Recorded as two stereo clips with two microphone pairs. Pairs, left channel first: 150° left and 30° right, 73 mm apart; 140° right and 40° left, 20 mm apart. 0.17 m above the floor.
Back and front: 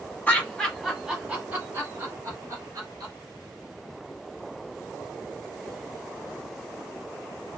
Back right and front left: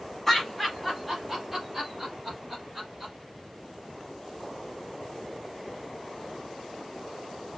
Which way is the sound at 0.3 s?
155° left.